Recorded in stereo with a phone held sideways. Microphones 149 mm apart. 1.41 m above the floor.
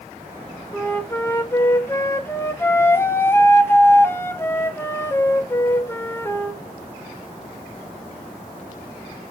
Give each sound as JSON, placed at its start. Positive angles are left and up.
{"t": 0.7, "sound": "a flute", "side_deg": 15, "distance_m": 0.5}